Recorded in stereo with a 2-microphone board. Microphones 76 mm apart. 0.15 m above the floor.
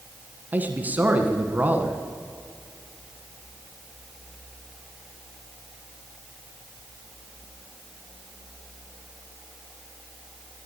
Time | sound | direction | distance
0.5 | a man speaking | 25° right (ahead or behind) | 1.2 m